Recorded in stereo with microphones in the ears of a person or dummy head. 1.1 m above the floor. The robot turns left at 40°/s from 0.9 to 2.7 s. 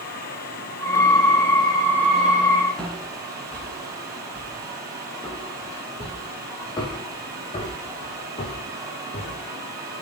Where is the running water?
50° left, 7 m; by 10.0 s 20° right, 7 m.